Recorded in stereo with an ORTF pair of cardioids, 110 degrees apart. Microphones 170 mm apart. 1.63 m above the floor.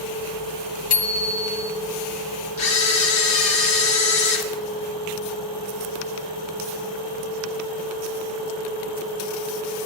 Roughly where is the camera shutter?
Ahead left.